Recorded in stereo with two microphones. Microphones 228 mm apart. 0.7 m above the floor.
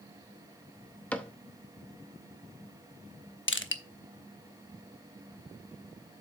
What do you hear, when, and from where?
1.1 s a cupboard door: 5° left (ahead or behind), 0.9 m
3.5 s crushing: 65° left (ahead or behind), 0.9 m